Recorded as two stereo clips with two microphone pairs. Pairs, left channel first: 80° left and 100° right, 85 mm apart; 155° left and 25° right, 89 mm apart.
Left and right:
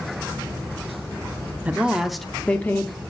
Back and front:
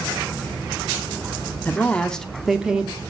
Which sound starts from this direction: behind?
A woman speaking, at 1.6 s.